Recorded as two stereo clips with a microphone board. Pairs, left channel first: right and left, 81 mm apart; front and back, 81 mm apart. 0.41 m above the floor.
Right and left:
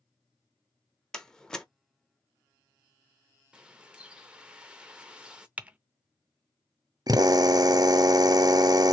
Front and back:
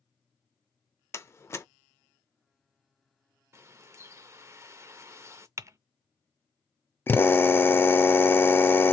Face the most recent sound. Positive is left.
turn(degrees=60)